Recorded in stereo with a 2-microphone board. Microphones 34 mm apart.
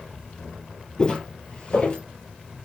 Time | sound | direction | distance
1.0 | footsteps | 25° left (ahead or behind) | 1.6 m